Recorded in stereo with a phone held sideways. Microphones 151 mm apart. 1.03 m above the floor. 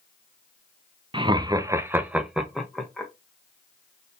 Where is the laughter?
35° right (ahead or behind), 0.6 m; by 3.1 s 5° left (ahead or behind), 1.2 m.